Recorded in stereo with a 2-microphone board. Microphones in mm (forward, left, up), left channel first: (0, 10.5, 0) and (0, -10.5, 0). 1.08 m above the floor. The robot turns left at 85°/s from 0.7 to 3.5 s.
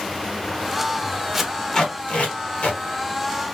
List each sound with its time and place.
1.3 s tape being pulled: 10° right (ahead or behind), 1.2 m; by 2.8 s 65° left (ahead or behind), 1.2 m